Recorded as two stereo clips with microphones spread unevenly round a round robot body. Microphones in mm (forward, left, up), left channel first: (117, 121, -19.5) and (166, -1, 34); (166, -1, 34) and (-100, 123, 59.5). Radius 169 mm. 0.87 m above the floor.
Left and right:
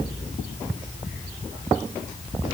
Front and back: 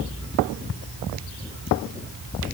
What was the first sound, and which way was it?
Only background noise.